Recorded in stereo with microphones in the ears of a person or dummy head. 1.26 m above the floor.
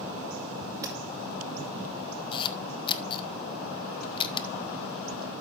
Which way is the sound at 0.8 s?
15° right (ahead or behind).